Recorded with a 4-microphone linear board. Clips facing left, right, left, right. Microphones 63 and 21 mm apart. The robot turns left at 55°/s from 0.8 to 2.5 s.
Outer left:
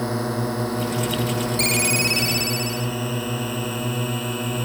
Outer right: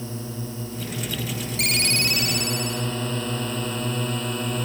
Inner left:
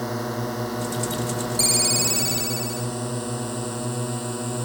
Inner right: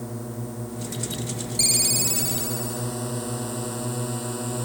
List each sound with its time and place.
0.0 s a drone: 70° left (ahead or behind); by 4.7 s 5° left (ahead or behind)
1.6 s a ringtone: 175° right; by 2.9 s 135° left